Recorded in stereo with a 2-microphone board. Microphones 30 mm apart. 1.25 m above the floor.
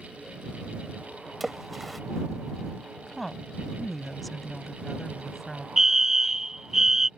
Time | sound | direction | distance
1.4 | a splash | centre (ahead or behind) | ?
3.1 | a woman speaking | 5° left (ahead or behind) | ?
5.8 | a fire alarm | 20° right (ahead or behind) | ?